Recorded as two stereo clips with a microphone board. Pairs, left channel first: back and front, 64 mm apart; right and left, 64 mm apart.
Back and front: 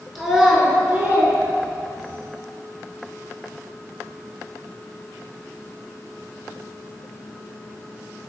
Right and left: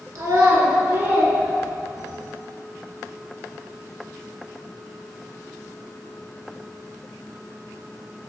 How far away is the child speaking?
About 1.0 m.